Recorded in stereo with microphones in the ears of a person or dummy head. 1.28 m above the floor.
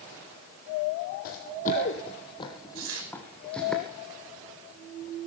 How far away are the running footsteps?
About 2 m.